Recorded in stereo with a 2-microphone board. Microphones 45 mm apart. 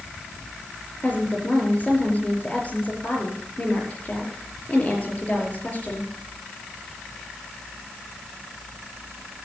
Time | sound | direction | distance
1.0 | a woman speaking | 30° left (ahead or behind) | 5 m